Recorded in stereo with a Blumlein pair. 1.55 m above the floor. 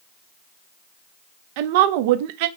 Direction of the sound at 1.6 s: 50° right.